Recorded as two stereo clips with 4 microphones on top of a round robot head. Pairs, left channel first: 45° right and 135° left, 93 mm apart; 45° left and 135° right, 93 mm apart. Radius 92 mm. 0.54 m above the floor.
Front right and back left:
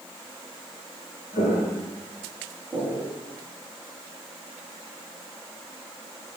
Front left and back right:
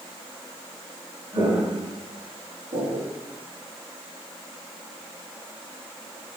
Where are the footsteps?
70° right, 1.6 m; by 3.1 s 165° right, 1.8 m.